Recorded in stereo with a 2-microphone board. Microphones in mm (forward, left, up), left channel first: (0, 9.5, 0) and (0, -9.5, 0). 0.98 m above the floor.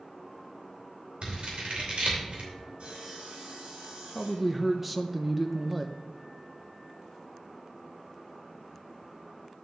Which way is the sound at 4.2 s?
10° right (ahead or behind).